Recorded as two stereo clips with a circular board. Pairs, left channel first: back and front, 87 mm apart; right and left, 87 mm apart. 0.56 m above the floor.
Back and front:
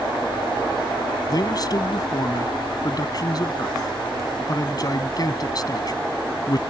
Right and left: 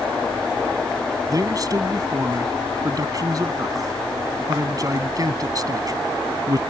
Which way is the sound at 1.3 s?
135° left.